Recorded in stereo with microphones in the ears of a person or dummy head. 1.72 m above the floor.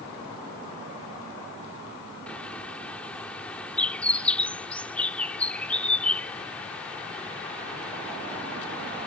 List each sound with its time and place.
2.3 s a bird: 5° left (ahead or behind)